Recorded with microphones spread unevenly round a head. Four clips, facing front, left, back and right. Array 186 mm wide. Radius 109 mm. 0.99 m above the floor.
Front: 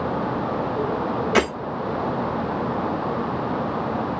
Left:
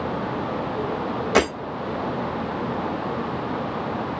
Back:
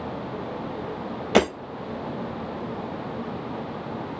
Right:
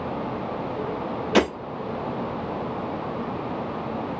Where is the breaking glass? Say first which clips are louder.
Even, back 2 dB; 170° right, 4 m.